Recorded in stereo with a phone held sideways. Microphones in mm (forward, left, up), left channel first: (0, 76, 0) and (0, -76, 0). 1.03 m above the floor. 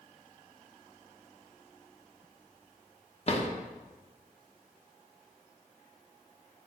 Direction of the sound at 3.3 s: 45° left (ahead or behind).